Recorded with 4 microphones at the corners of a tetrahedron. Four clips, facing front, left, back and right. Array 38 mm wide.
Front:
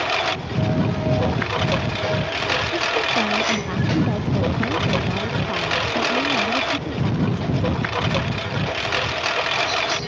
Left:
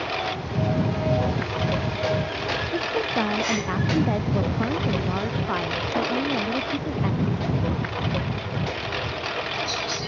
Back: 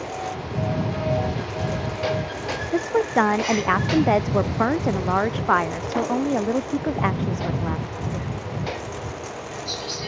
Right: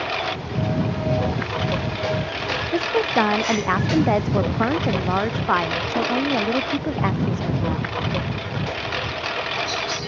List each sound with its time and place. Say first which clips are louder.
0.0 s a lawn mower: right 2 dB, front 8 dB; 10° right
2.7 s a woman speaking: right 7 dB, even; 140° right